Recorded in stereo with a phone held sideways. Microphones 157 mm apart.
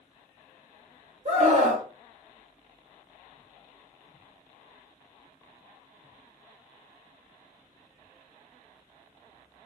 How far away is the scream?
About 1.7 m.